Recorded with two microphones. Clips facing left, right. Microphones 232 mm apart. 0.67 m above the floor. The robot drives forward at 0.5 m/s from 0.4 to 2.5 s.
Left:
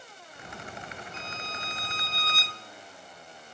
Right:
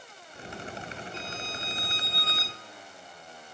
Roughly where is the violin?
Centre.